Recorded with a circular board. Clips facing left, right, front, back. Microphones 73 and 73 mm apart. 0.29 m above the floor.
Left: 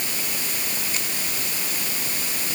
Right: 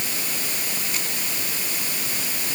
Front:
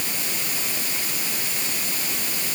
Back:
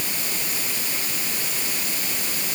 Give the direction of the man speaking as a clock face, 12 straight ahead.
I don't hear a man speaking.